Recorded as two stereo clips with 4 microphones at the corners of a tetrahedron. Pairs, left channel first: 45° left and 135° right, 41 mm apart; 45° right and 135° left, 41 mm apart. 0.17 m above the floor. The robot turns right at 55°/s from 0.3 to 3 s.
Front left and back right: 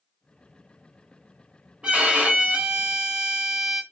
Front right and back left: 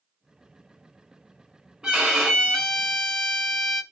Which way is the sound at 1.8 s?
170° right.